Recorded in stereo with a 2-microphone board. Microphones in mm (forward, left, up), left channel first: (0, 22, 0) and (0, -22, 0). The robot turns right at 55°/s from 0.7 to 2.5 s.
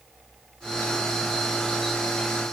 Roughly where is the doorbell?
I don't hear a doorbell.